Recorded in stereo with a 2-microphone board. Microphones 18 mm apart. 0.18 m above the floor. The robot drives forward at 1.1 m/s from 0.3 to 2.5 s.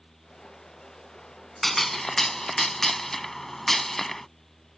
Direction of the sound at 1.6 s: 15° left (ahead or behind).